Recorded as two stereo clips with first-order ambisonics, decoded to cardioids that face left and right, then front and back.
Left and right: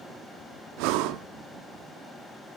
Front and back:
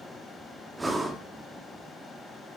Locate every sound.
0.8 s breathing: 100° right, 1.2 m